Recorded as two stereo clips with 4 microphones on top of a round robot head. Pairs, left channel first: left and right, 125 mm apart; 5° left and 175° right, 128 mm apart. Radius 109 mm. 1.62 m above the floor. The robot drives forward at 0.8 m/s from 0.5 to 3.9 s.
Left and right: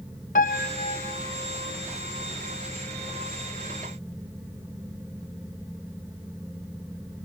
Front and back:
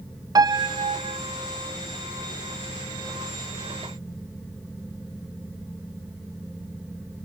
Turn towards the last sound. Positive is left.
turn(degrees=170)